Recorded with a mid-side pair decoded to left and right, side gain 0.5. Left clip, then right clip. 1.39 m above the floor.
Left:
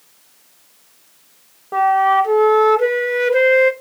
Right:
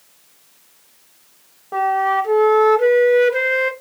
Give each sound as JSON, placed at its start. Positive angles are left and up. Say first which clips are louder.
{"t": 1.7, "sound": "a flute", "louder": "left 4 dB", "azimuth_deg": 10, "distance_m": 0.7}